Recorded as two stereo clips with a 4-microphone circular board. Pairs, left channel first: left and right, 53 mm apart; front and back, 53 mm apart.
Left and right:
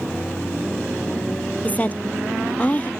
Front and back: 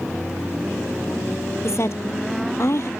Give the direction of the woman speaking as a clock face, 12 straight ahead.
11 o'clock.